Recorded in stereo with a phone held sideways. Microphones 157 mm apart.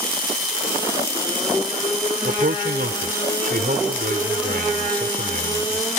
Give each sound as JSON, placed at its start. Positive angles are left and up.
{"t": 2.2, "sound": "a man speaking", "side_deg": -70}